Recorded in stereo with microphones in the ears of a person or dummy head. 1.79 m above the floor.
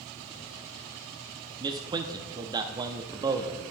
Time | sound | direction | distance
1.6 | a man speaking | 20° right (ahead or behind) | 0.5 m